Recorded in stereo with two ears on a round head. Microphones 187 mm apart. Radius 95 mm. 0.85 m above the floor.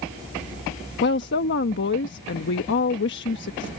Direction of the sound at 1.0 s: 55° left (ahead or behind).